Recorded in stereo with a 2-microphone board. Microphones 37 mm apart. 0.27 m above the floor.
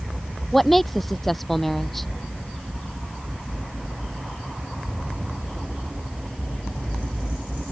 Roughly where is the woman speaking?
Centre.